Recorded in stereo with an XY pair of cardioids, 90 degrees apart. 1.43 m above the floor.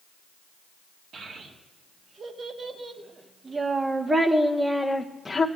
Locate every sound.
1.1 s a child speaking: 65° right, 3 m; by 5.5 s 20° left, 1.2 m